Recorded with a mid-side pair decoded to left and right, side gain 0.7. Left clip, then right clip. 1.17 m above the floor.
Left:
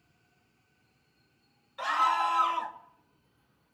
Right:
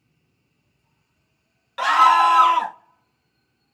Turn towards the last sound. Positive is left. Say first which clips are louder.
# right 12 dB
turn(degrees=-65)